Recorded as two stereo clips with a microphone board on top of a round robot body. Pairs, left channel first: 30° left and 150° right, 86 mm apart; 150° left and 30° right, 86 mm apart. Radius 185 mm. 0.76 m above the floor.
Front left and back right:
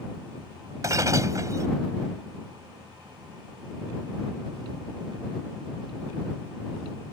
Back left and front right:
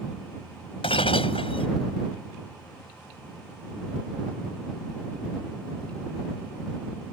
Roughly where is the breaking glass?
Behind.